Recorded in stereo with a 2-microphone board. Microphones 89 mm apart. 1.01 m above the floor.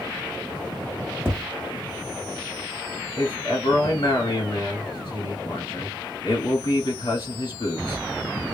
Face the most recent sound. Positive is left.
turn(degrees=60)  # may be behind; listen again after turning